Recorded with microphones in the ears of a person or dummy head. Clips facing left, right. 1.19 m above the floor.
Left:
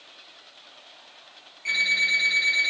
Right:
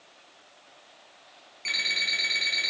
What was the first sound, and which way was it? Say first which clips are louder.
An alarm clock: left 3 dB; 50° right (ahead or behind).